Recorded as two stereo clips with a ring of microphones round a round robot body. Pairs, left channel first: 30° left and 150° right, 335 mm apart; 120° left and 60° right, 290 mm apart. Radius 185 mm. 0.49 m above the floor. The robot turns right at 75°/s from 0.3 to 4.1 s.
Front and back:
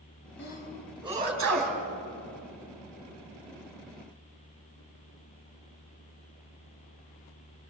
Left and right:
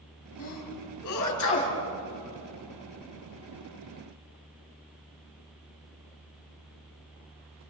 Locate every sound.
0.4 s a sneeze: 85° left, 4.5 m; by 1.8 s 170° right, 4.5 m